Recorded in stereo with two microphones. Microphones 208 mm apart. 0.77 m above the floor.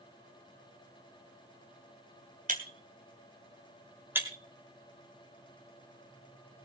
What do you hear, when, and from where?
2.5 s breaking glass: 40° right (ahead or behind), 2.5 m
4.2 s breaking glass: 10° right (ahead or behind), 4 m